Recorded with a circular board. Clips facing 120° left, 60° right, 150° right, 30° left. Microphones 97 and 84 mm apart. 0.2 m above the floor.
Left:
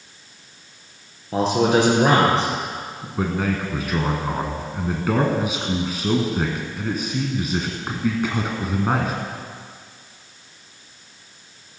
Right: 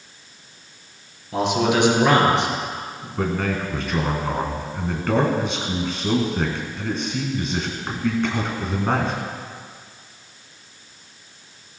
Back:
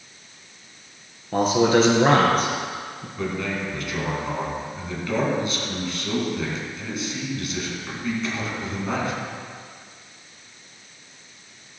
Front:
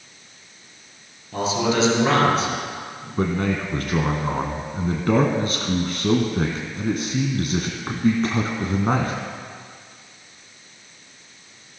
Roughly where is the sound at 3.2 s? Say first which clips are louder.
Even, front 5 dB; ahead left.